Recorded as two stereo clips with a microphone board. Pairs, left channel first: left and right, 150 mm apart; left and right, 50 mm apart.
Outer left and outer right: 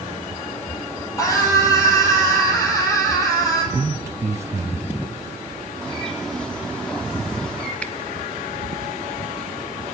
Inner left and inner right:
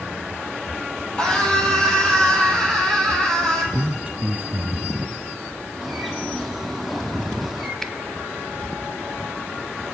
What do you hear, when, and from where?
1.2 s a scream: 20° left (ahead or behind), 6.5 m
3.7 s a man speaking: 20° right (ahead or behind), 1.1 m
5.8 s a bird: 5° left (ahead or behind), 3 m
7.8 s a finger snap: 10° left (ahead or behind), 1.0 m